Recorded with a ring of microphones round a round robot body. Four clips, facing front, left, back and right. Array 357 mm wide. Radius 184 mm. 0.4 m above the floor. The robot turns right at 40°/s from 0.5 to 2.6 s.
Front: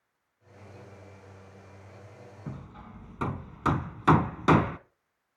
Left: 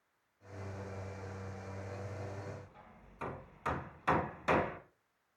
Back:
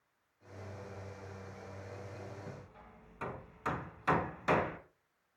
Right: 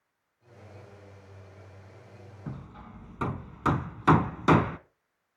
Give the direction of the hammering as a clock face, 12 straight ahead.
2 o'clock.